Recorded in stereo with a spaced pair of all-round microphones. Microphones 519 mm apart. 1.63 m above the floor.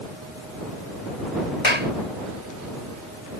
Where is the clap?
70° left (ahead or behind).